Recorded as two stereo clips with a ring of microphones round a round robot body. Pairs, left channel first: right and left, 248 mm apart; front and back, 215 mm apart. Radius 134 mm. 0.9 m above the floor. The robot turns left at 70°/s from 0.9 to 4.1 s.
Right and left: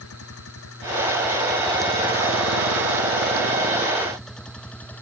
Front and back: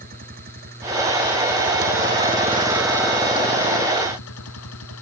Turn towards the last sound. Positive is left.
turn(degrees=-5)